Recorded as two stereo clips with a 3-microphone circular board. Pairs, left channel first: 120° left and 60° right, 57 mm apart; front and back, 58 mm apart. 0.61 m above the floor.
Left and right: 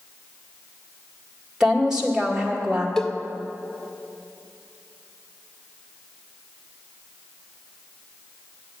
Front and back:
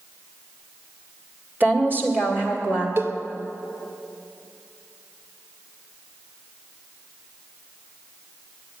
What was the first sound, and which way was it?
A woman speaking, 135° right.